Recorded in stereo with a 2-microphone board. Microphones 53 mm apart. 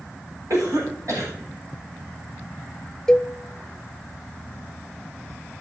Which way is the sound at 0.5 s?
80° right.